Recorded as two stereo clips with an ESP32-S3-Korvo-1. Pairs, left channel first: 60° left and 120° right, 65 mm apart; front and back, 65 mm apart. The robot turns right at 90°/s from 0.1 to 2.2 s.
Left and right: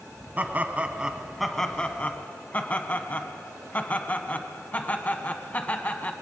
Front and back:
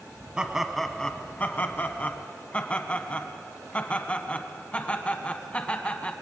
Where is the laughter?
125° right, 1.2 m; by 6.1 s 40° left, 1.2 m.